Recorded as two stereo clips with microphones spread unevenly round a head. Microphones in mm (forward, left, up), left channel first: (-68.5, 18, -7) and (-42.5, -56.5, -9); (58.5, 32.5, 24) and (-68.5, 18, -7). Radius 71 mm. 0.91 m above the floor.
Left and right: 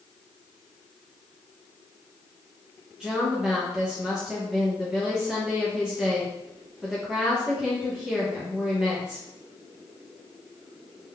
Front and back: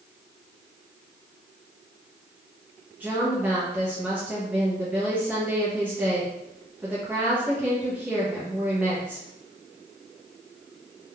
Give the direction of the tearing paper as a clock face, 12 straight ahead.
No tearing paper in this recording.